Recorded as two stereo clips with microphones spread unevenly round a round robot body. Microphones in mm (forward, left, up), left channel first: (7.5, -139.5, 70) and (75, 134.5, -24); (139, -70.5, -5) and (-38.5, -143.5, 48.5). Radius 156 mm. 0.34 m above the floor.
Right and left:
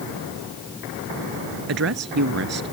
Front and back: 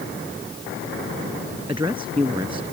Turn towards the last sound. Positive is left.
turn(degrees=125)